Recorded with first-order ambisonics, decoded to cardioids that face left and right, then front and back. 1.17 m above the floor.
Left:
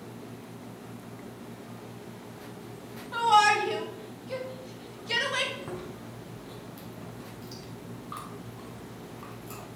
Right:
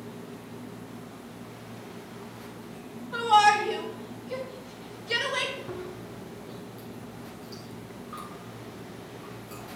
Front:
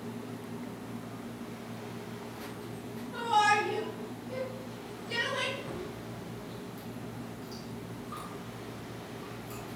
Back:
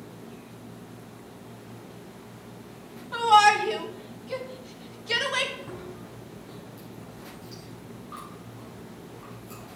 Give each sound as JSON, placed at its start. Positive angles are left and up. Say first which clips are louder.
{"t": 3.1, "sound": "a shout", "louder": "right 1 dB, back 8 dB", "azimuth_deg": 155, "distance_m": 2.5}
{"t": 5.6, "sound": "chewing", "louder": "right 1 dB, even", "azimuth_deg": 95, "distance_m": 4.0}